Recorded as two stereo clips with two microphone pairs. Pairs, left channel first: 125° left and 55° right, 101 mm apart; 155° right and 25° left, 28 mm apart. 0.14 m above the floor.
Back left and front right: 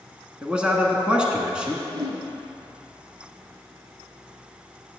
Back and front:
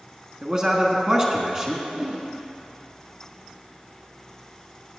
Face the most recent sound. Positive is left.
turn(degrees=-25)